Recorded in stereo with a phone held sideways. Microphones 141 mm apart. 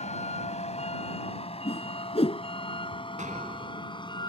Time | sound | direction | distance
0.0 | a vehicle | 60° left (ahead or behind) | ?
1.6 | a whoosh | 50° left (ahead or behind) | ?
3.2 | an explosion | 70° right (ahead or behind) | ?